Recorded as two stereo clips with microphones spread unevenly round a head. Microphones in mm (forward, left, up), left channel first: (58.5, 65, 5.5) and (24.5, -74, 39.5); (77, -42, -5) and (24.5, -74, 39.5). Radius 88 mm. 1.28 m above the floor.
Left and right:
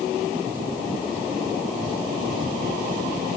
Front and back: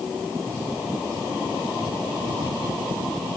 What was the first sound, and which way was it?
Only background noise.